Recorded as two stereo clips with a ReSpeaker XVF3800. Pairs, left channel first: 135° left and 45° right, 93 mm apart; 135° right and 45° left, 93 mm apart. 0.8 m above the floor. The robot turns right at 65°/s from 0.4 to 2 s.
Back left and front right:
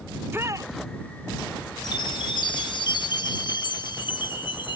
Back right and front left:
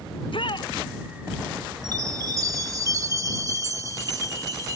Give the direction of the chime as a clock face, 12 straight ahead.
9 o'clock.